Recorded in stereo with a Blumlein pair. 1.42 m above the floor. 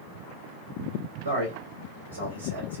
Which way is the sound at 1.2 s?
70° right.